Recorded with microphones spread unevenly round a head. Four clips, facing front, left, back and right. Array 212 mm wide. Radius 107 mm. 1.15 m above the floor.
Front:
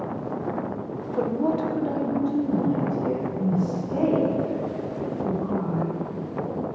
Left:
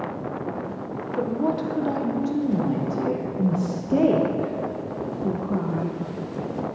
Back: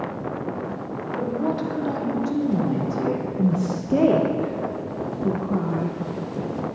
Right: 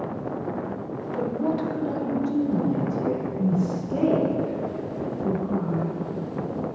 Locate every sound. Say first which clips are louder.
1.2 s a woman speaking: left 1 dB, front 2 dB; 45° left, 0.9 m; by 3.3 s 125° left, 1.8 m
3.4 s a woman speaking: even, back 2 dB; 125° left, 0.8 m